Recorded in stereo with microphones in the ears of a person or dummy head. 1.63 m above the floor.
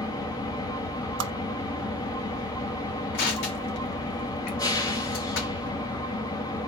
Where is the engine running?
20° left (ahead or behind), 1.6 m.